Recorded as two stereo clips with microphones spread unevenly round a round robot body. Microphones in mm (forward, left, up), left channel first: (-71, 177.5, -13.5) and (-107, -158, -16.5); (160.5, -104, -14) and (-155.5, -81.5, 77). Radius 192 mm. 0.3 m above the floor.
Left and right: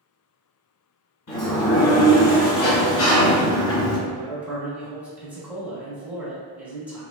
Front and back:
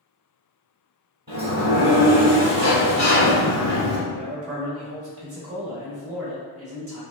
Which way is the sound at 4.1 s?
175° right.